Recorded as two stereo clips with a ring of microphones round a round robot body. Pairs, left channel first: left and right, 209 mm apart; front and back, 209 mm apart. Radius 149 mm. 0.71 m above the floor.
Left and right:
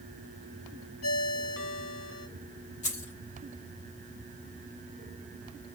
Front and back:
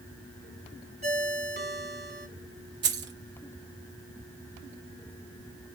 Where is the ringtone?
130° left, 2 m.